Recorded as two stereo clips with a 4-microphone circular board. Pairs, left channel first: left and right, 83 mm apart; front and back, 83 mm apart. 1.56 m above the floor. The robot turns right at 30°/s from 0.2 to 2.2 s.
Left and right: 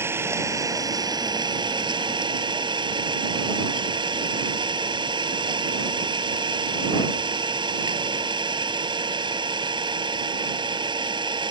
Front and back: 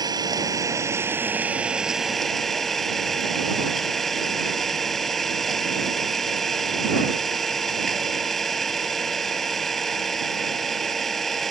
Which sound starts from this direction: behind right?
An engine running, at 0.0 s.